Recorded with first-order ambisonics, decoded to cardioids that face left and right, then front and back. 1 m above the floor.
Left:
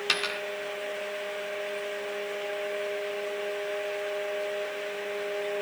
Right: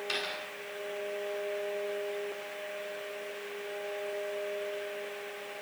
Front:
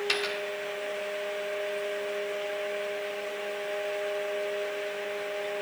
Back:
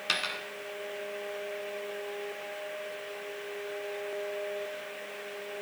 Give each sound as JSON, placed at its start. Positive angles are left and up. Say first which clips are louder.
{"t": 0.1, "sound": "a dropped coin", "louder": "left 7 dB, back 1 dB", "azimuth_deg": 100, "distance_m": 1.1}